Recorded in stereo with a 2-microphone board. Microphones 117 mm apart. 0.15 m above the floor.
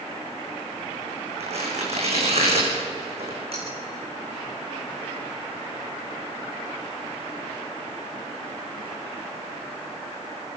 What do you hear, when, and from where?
1.4 s tearing paper: 60° right (ahead or behind), 6.5 m
3.5 s cutlery clinking: 55° right (ahead or behind), 8.5 m